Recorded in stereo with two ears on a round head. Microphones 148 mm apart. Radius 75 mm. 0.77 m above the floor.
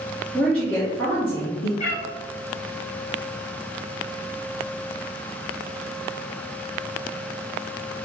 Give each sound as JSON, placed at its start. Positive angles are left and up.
{"t": 0.3, "sound": "a woman speaking", "side_deg": 0, "distance_m": 1.2}
{"t": 1.8, "sound": "a cat meowing", "side_deg": 40, "distance_m": 1.5}